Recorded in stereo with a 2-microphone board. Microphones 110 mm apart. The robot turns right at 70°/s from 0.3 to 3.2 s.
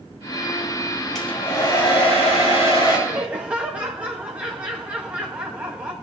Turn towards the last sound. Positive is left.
turn(degrees=-10)  # may be behind; listen again after turning